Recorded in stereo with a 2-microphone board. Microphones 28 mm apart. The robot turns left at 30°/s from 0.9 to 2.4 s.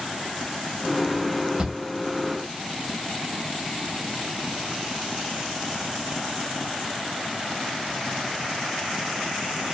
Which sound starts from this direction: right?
A shout, at 1.6 s.